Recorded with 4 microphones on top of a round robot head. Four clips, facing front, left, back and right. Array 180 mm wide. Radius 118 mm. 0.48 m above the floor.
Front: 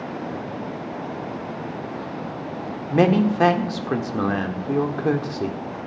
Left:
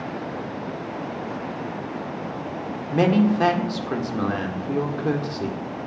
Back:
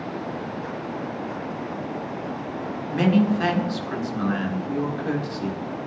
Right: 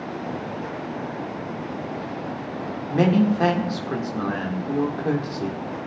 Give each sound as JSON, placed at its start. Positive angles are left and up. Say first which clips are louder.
{"t": 2.9, "sound": "a man speaking", "louder": "even, front 2 dB", "azimuth_deg": 5, "distance_m": 1.8}